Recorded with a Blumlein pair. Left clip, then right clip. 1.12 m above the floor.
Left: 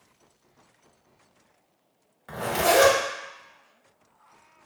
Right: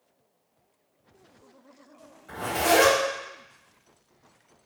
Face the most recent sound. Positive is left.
turn(degrees=60)